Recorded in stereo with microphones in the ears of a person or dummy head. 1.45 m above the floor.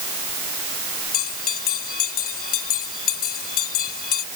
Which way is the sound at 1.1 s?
50° left (ahead or behind).